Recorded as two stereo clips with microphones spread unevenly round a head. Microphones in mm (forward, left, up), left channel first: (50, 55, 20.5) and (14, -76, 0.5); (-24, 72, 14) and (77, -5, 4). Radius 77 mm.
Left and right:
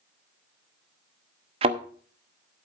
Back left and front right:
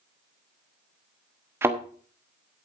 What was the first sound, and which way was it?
A thud, 105° right.